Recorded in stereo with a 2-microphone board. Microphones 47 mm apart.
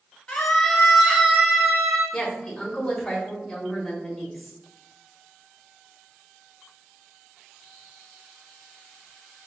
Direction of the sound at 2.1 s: 10° left (ahead or behind).